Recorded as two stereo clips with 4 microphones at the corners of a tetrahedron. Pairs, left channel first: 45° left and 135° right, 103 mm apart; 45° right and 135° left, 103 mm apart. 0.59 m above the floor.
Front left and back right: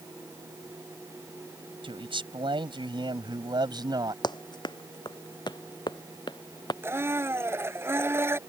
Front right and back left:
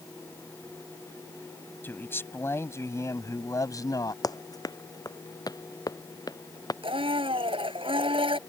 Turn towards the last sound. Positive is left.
turn(degrees=160)